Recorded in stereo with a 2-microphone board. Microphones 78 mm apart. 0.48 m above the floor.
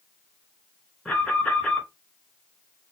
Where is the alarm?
5° left (ahead or behind), 3.5 m.